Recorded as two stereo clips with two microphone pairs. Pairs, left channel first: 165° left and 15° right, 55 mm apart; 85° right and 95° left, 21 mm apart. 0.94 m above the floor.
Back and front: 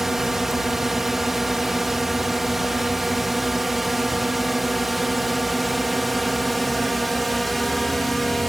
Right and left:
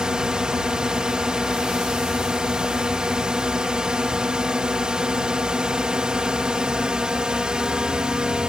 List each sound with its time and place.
0.0 s a drone: 70° left; by 8.5 s 80° left